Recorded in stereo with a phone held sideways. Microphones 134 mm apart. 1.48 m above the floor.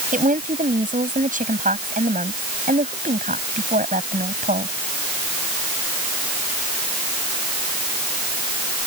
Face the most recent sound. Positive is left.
turn(degrees=-85)